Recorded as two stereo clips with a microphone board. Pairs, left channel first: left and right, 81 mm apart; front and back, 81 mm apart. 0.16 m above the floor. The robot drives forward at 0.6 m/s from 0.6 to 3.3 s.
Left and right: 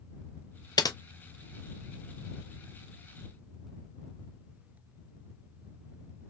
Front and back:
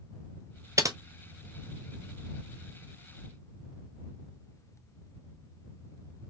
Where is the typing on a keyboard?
130° left, 0.7 m; by 1.0 s 135° left, 0.8 m.